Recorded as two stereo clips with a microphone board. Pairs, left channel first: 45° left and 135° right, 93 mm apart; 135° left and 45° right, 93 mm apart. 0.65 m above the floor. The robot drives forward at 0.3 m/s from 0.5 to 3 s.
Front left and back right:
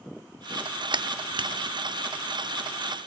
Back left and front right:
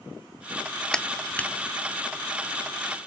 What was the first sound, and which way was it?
A clap, 145° right.